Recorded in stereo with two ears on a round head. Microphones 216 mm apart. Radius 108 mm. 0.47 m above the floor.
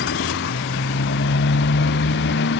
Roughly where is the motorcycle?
Left.